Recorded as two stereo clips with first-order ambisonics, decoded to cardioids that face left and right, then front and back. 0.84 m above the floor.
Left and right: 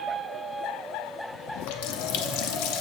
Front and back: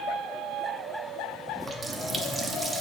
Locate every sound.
1.6 s a running tap: 100° left, 0.6 m